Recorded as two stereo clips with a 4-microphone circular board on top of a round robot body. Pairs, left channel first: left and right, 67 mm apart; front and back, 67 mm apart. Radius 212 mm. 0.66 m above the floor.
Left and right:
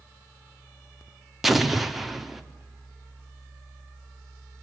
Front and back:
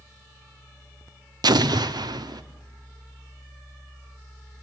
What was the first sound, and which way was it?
An explosion, straight behind.